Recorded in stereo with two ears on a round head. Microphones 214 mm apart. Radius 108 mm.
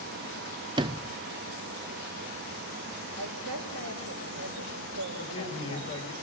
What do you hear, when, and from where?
0.8 s a sliding door: 20° right (ahead or behind), 0.5 m
3.1 s a woman speaking: 70° right (ahead or behind), 5.5 m
5.2 s a man speaking: 20° left (ahead or behind), 7.5 m